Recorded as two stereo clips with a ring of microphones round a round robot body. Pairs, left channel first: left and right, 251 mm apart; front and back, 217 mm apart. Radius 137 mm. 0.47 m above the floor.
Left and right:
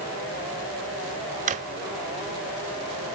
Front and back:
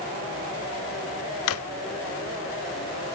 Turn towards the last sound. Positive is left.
turn(degrees=-30)